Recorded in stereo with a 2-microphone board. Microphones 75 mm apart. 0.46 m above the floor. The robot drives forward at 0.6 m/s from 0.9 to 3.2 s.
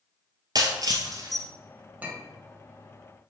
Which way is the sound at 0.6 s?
60° right (ahead or behind).